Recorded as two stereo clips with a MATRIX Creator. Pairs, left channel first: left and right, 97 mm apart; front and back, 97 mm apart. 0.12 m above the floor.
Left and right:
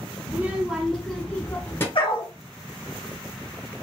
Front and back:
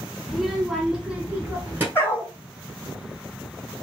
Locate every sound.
0.3 s a child speaking: 85° right, 0.9 m; by 1.9 s 130° left, 1.0 m
1.9 s a dog barking: 70° left, 1.0 m